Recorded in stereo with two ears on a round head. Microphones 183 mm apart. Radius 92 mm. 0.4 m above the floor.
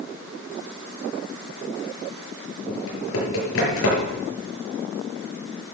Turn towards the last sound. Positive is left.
turn(degrees=80)